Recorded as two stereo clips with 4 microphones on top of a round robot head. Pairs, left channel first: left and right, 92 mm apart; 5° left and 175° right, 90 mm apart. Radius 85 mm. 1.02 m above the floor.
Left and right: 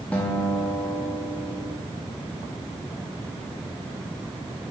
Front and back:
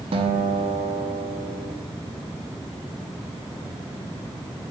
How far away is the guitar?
About 0.7 m.